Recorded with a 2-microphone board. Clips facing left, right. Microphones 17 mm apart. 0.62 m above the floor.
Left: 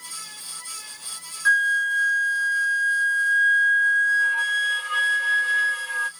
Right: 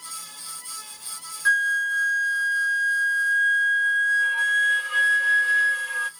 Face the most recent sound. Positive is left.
turn(degrees=5)  # may be behind; listen again after turning